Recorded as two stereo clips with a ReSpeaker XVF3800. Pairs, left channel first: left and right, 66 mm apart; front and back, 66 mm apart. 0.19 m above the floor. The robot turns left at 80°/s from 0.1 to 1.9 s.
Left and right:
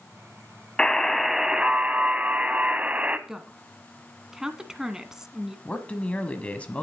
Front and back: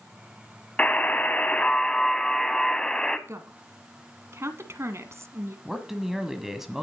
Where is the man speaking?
105° left, 1.3 m.